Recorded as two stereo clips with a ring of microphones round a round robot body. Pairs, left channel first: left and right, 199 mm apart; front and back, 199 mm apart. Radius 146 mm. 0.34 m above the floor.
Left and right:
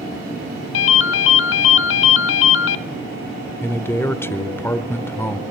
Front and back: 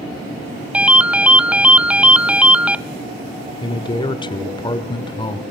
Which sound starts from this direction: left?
A ringtone, at 0.7 s.